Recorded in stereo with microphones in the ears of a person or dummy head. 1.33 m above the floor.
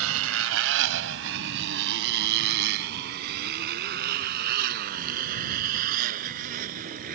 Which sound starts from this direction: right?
A motorcycle, at 0.0 s.